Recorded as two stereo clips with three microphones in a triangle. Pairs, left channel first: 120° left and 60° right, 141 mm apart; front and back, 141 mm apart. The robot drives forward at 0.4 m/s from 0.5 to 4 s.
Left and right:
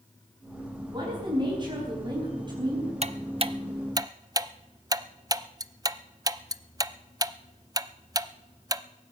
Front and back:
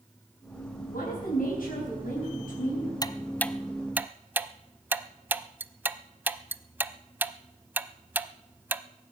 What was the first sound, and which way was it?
A woman speaking, 5° right.